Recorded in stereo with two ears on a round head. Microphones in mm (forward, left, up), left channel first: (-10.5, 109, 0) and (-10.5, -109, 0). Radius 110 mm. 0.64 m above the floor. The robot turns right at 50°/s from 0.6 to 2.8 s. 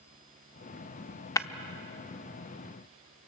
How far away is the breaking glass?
About 0.7 m.